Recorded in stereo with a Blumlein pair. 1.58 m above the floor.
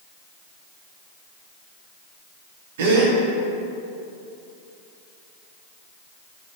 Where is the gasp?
55° right, 1.4 m.